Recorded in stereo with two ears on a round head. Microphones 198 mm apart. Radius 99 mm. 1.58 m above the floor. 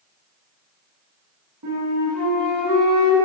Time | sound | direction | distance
1.6 | a flute | 85° right | 1.9 m